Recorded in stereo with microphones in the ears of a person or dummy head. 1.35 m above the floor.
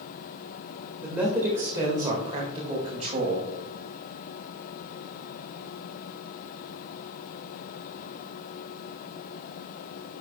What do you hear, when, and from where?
1.0 s a man speaking: 5° right (ahead or behind), 1.9 m; by 3.5 s 35° right (ahead or behind), 2.5 m